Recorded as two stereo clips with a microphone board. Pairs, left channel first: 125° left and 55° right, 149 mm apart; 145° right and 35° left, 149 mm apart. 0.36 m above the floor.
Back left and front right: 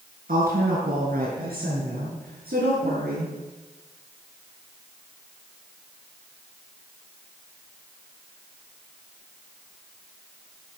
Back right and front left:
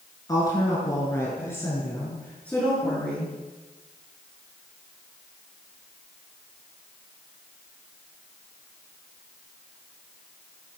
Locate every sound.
0.3 s a woman speaking: 80° right, 7 m; by 3.3 s 60° right, 7 m